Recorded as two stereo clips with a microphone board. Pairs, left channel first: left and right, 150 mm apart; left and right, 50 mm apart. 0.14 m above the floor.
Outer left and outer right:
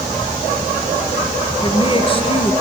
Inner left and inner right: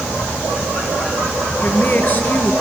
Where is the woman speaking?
40° left (ahead or behind), 2.5 m.